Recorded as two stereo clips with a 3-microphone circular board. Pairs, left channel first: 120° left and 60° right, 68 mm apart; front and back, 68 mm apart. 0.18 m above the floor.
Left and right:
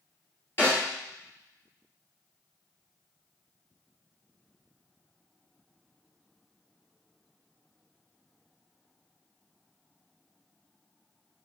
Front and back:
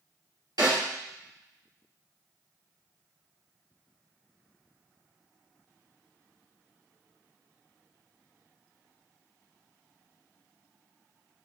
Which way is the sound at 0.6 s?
170° left.